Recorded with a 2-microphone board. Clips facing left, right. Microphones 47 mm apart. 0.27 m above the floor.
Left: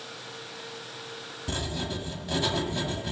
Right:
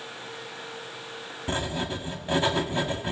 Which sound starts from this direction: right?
Writing, at 1.5 s.